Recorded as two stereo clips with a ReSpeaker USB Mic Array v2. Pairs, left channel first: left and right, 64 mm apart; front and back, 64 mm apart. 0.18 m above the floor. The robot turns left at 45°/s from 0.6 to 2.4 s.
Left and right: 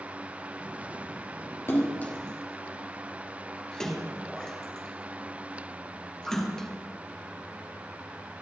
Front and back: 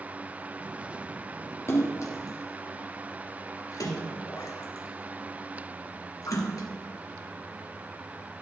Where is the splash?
45° left, 2.5 m; by 6.7 s 10° left, 2.5 m.